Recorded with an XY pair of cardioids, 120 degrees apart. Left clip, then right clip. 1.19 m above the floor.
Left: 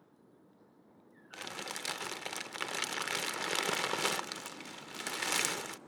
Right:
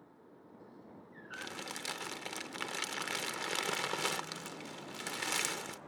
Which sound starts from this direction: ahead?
Crumpling, at 1.3 s.